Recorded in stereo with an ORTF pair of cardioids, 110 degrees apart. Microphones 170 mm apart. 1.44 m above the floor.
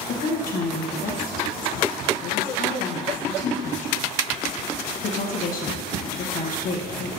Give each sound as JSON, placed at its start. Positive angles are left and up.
{"t": 0.1, "sound": "a woman speaking", "azimuth_deg": 55, "distance_m": 1.1}